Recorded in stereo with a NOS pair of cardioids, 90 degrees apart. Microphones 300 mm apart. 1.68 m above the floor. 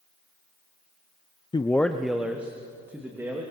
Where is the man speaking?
15° left, 0.5 m; by 3.4 s 10° right, 3 m.